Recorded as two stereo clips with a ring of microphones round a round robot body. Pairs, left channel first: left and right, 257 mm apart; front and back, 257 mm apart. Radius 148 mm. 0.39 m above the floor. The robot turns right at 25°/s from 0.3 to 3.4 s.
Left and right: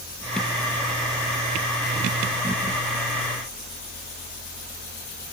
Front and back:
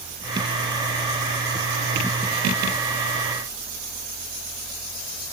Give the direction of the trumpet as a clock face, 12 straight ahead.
No trumpet in this recording.